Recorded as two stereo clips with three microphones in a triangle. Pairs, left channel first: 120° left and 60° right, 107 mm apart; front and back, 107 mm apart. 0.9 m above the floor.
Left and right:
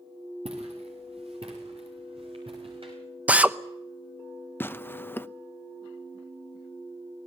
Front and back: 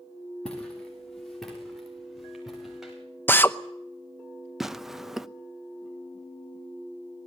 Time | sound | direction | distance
0.5 | footsteps | 85° right | 7 m
3.3 | a drill | 10° right | 0.8 m
4.6 | tearing paper | 100° left | 0.6 m